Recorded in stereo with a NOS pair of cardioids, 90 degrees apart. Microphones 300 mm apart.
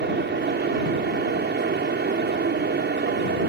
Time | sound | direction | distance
0.0 | a fan | 35° right | ?